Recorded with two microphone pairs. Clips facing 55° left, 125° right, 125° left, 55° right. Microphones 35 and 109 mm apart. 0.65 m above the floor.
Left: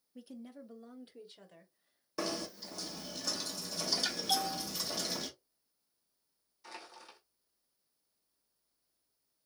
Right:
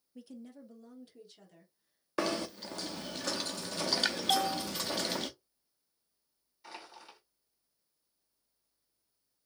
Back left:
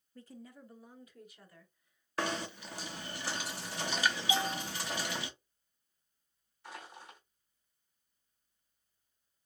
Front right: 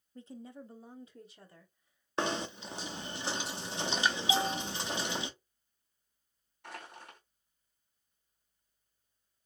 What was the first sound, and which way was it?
A woman speaking, 30° right.